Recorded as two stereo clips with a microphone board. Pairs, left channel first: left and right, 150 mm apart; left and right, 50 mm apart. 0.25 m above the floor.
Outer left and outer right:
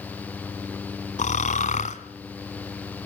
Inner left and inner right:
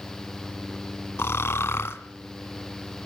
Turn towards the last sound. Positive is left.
turn(degrees=55)  # may be behind; listen again after turning